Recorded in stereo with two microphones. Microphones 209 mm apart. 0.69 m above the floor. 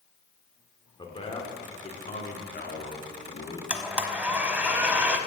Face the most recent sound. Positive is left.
turn(degrees=-5)  # may be behind; listen again after turning